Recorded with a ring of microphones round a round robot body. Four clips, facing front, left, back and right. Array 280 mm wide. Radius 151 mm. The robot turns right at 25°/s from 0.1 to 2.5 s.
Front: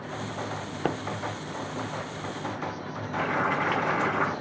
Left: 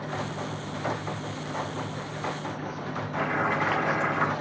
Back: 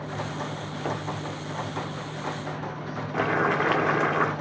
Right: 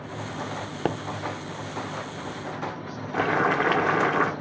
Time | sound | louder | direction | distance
0.8 | a pop | right 3 dB, front 2 dB | 60° right | 0.6 m
3.1 | boiling | right 4 dB, back 3 dB | 120° right | 1.3 m